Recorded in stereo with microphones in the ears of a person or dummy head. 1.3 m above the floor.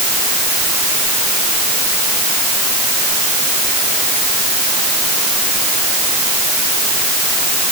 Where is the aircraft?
I don't hear an aircraft.